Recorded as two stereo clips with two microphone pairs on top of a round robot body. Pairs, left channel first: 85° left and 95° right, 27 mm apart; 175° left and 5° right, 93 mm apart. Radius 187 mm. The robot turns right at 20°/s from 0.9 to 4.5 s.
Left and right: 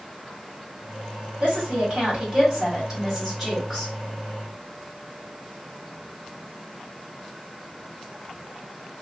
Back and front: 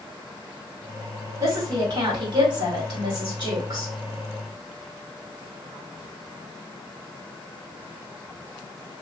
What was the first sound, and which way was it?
A woman speaking, 60° right.